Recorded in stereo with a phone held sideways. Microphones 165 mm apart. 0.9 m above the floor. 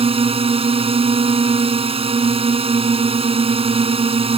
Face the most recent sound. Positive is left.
turn(degrees=-35)  # may be behind; listen again after turning